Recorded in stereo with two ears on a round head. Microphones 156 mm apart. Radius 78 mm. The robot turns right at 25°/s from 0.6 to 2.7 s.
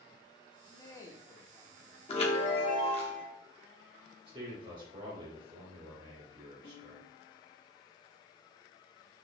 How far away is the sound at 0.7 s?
About 0.7 m.